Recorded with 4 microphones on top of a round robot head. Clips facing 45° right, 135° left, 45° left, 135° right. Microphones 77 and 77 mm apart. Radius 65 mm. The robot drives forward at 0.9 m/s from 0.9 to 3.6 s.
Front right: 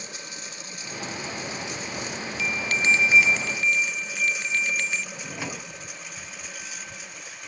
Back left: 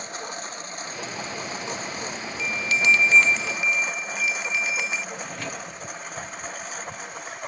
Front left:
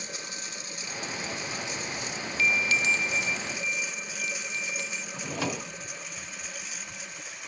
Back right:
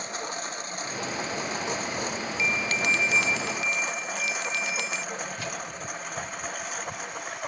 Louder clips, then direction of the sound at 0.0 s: Back left 6 dB, back right 7 dB; straight behind.